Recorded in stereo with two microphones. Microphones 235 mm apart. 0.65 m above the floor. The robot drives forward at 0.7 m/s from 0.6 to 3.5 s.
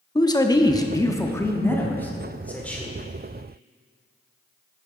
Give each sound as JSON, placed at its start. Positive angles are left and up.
{"t": 0.1, "sound": "a man speaking", "side_deg": 15, "distance_m": 0.6}